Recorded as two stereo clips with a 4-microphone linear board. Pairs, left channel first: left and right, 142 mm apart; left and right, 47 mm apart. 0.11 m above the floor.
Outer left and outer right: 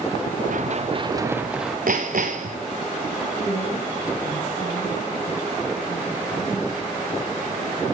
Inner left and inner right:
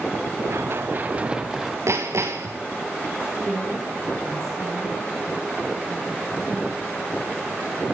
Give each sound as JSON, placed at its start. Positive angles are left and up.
{"t": 0.5, "sound": "running footsteps", "side_deg": -70, "distance_m": 1.1}
{"t": 1.9, "sound": "hammering", "side_deg": -75, "distance_m": 2.5}
{"t": 3.3, "sound": "a woman speaking", "side_deg": 60, "distance_m": 8.5}